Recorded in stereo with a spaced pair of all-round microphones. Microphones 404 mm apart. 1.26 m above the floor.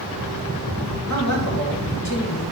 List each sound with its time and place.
1.1 s a man speaking: 45° left (ahead or behind), 2 m